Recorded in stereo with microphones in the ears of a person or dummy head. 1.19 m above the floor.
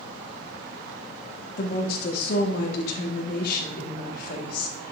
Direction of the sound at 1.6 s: 60° left (ahead or behind).